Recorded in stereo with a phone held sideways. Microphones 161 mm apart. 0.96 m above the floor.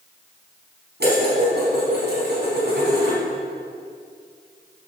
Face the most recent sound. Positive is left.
turn(degrees=-75)  # may be behind; listen again after turning